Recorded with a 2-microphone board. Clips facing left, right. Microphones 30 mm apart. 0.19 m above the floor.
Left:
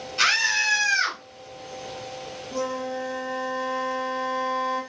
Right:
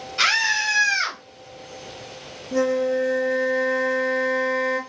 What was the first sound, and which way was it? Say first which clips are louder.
A scream: right 1 dB; 10° right (ahead or behind).